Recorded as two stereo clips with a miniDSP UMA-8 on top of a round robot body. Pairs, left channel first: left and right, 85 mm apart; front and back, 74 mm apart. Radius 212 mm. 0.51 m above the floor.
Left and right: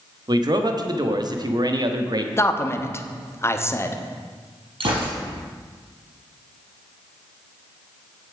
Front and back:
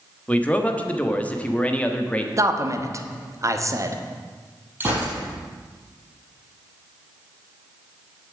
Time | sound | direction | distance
0.3 | a man speaking | 70° right | 1.5 m
2.4 | a man speaking | 145° left | 1.4 m
4.8 | a gunshot | 115° right | 5 m